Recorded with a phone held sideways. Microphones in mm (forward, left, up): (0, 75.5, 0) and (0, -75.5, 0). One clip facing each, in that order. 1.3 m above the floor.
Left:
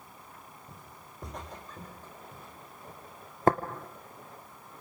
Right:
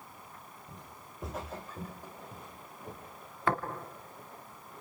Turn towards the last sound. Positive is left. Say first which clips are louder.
# left 6 dB
turn(degrees=40)  # may be behind; listen again after turning